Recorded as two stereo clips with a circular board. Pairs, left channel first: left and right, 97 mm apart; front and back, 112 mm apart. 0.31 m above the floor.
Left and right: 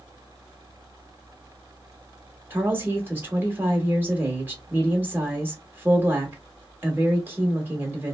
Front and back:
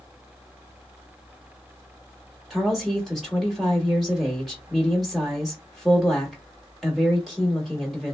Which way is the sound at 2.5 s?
90° right.